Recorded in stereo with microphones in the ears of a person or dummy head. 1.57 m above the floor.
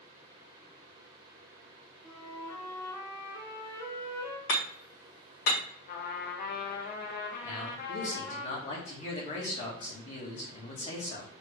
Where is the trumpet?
50° left (ahead or behind), 1.1 m.